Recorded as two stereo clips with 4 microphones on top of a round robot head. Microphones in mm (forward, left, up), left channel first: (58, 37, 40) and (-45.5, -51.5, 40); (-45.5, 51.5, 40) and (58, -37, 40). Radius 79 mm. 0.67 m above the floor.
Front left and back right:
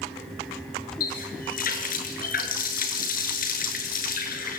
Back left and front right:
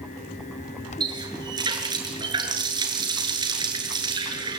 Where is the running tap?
20° left, 6.5 m.